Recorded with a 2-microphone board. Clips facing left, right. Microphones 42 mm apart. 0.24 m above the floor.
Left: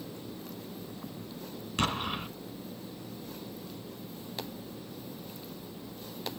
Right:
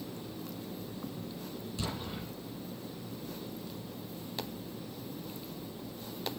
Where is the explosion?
60° left (ahead or behind), 1.8 m.